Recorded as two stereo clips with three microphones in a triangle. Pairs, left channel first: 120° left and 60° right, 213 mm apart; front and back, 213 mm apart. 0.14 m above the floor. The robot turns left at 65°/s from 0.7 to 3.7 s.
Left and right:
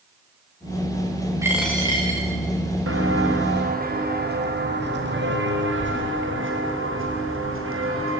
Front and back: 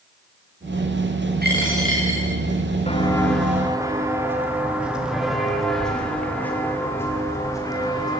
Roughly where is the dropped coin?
Behind right.